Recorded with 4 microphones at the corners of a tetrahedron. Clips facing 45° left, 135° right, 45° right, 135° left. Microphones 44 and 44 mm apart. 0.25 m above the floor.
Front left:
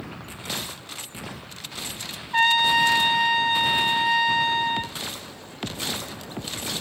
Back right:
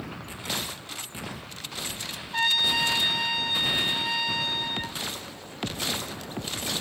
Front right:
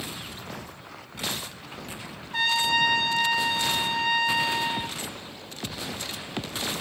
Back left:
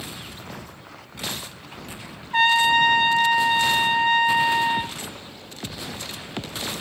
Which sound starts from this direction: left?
A trumpet, at 2.3 s.